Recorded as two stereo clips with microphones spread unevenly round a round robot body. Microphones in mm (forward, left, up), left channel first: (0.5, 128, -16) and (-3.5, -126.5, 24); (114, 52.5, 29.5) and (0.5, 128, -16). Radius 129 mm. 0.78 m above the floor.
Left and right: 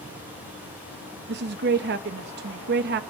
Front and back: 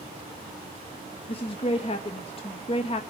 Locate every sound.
1.3 s a woman speaking: 85° right, 0.6 m